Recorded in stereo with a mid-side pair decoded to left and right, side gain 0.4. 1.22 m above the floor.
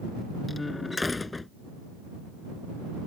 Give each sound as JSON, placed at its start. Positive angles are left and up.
{"t": 0.5, "sound": "a door slam", "azimuth_deg": 25}